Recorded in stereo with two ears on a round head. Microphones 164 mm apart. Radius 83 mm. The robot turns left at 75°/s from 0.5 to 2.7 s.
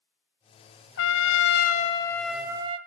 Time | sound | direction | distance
1.0 | a trumpet | 100° left | 0.6 m